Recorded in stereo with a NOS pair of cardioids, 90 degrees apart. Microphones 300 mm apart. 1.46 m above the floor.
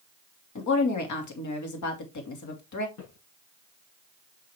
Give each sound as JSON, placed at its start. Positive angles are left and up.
{"t": 0.6, "sound": "a woman speaking", "azimuth_deg": 65, "distance_m": 2.5}
{"t": 3.0, "sound": "footsteps", "azimuth_deg": 65, "distance_m": 5.5}